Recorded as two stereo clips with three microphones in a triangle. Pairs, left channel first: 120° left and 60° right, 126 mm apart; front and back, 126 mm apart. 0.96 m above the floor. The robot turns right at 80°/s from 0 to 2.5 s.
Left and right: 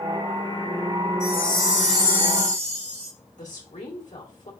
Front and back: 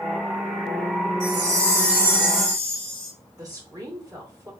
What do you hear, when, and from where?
1.2 s a chime: 175° left, 3.5 m; by 3.1 s 80° right, 3.5 m
3.4 s a woman speaking: 120° left, 2 m